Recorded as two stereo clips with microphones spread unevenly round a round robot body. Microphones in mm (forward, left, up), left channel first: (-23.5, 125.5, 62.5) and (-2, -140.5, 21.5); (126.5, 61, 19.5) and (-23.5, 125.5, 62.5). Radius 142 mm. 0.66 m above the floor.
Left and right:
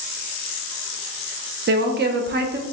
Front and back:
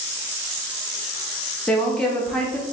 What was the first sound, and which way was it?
A woman speaking, 90° right.